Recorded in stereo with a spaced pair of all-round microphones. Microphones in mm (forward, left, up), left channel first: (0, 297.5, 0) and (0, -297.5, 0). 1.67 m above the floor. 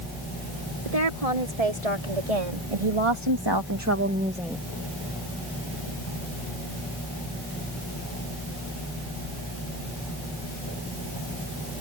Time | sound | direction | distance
0.8 | a woman speaking | 85° right | ?